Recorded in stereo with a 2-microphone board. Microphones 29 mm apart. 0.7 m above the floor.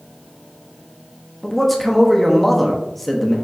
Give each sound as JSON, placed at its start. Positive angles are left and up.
{"t": 1.4, "sound": "a man speaking", "side_deg": 5, "distance_m": 0.7}